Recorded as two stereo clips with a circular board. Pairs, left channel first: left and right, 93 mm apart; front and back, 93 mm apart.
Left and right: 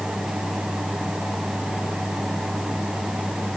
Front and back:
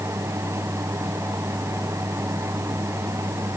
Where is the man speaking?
I don't hear a man speaking.